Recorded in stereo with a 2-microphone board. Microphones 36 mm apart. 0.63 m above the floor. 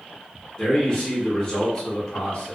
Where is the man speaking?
20° left (ahead or behind), 0.7 m.